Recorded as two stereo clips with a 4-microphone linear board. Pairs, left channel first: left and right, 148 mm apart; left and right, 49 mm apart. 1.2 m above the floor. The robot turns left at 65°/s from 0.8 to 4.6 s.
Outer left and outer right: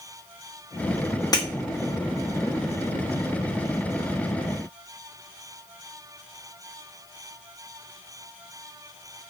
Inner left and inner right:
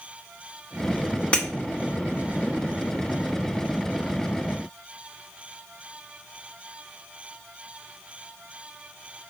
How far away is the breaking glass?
About 0.9 m.